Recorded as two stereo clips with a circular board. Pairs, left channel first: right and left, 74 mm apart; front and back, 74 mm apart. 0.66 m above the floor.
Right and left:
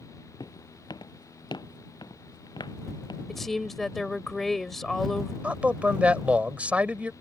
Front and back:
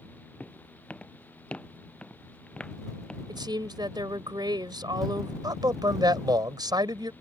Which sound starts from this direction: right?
Footsteps, at 0.4 s.